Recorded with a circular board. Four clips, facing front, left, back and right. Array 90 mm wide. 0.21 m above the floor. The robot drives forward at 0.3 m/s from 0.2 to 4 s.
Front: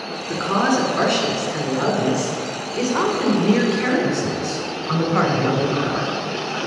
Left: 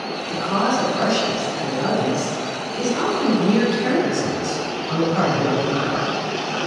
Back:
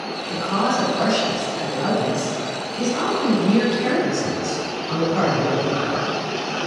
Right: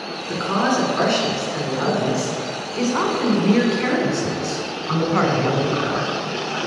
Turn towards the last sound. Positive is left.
turn(degrees=-60)